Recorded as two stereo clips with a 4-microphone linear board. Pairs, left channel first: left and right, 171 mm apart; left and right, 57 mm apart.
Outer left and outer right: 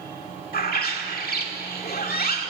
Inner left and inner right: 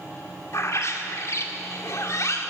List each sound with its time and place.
0.5 s a bird: 60° left (ahead or behind), 2 m